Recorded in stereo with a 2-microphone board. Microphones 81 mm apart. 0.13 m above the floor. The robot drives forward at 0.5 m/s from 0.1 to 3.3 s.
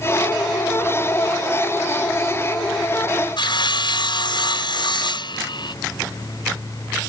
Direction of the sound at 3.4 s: 70° left (ahead or behind).